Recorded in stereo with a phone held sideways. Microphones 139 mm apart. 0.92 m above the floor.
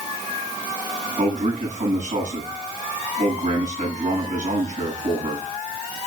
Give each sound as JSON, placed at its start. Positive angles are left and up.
{"t": 1.2, "sound": "a man speaking", "side_deg": -70, "distance_m": 7.5}